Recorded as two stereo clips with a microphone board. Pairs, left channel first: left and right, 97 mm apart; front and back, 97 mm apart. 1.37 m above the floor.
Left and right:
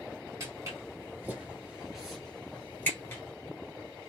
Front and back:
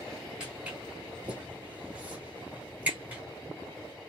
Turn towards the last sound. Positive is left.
turn(degrees=120)